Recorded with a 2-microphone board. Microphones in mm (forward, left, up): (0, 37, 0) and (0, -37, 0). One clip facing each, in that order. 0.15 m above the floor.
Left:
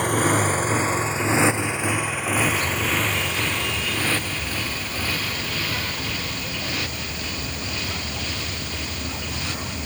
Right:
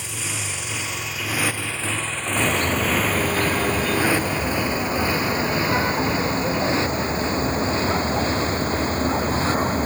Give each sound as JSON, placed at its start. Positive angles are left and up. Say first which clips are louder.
{"t": 0.0, "sound": "a motorcycle", "louder": "left 12 dB", "side_deg": 55}
{"t": 2.4, "sound": "a car horn", "louder": "right 4 dB", "side_deg": -45}